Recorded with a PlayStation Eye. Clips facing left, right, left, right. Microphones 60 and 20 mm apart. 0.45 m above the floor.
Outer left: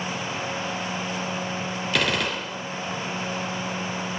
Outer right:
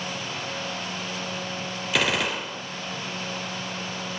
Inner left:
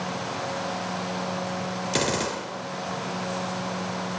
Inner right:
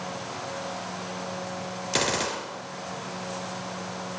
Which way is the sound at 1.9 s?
5° right (ahead or behind).